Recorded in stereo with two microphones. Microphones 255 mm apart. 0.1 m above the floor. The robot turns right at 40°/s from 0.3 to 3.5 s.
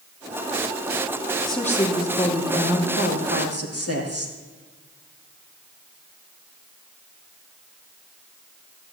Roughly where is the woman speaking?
Ahead.